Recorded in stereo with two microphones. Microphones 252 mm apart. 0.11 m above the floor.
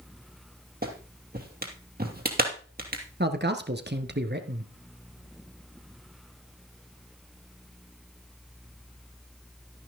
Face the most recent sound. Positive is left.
turn(degrees=-40)  # may be behind; listen again after turning